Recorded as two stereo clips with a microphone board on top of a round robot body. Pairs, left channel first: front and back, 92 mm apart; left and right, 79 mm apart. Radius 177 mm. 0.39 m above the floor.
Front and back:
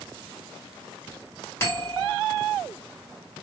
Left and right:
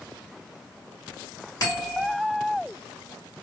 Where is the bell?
60° left, 2 m.